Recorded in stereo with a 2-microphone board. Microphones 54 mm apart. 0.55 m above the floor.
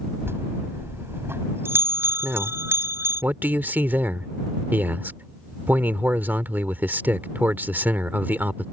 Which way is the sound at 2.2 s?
35° right (ahead or behind).